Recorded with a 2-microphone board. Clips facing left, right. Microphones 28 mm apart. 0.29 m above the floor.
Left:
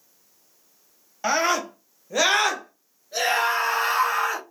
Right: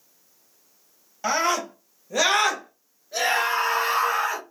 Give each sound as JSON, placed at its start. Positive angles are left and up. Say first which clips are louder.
{"t": 1.2, "sound": "a scream", "louder": "left 1 dB", "side_deg": 10, "distance_m": 1.1}